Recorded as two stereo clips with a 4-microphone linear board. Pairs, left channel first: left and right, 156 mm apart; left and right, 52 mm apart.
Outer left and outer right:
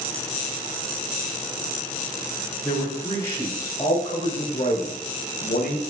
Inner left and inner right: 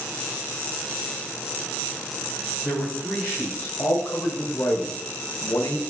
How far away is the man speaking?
About 4.5 m.